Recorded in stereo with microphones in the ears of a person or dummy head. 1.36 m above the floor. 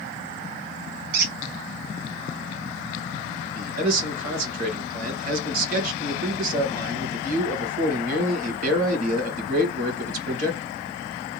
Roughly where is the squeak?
Right.